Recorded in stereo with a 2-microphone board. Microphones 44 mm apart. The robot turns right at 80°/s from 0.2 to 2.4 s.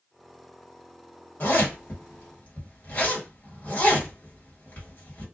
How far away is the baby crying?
No baby crying in this recording.